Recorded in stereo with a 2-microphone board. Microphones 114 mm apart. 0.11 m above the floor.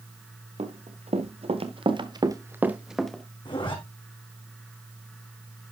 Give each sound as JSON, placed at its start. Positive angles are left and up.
{"t": 0.6, "sound": "running footsteps", "side_deg": -85, "distance_m": 2.0}
{"t": 3.5, "sound": "a zipper", "side_deg": 50, "distance_m": 3.0}